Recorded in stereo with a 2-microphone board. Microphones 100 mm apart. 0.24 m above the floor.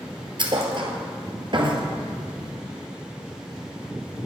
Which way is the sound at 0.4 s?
55° right (ahead or behind).